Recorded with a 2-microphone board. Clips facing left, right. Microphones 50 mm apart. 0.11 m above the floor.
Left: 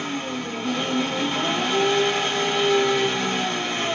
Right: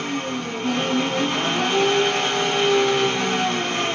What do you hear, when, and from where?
0.0 s an engine running: 55° right (ahead or behind), 1.2 m